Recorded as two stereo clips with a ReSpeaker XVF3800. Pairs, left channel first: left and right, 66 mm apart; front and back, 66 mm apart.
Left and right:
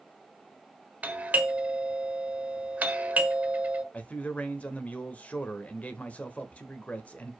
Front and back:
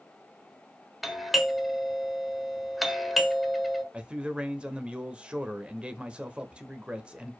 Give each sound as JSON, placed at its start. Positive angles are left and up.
{"t": 1.0, "sound": "a doorbell", "azimuth_deg": -95, "distance_m": 1.3}
{"t": 3.9, "sound": "a man speaking", "azimuth_deg": 125, "distance_m": 0.9}